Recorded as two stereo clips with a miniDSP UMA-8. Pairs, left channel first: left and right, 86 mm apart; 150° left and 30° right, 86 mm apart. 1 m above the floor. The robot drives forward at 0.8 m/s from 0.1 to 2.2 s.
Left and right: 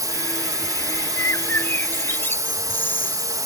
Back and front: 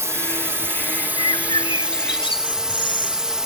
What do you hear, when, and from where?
0.0 s a drone: 75° right; by 3.5 s 110° right
1.2 s a bird: 145° left; by 3.4 s 155° left